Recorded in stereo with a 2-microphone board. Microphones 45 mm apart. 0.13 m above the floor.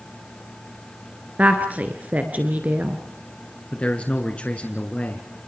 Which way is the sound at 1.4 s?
40° right (ahead or behind).